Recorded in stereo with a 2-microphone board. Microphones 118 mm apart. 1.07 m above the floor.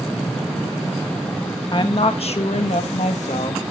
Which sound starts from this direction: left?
A woman speaking, at 1.7 s.